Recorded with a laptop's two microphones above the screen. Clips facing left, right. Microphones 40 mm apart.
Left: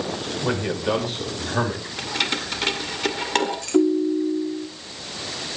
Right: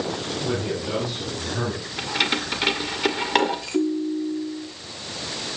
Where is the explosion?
No explosion in this recording.